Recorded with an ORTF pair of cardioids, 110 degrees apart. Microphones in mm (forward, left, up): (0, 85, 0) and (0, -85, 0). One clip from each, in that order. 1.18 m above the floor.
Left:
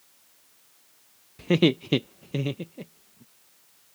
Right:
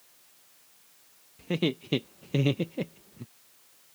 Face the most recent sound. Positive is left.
turn(degrees=-60)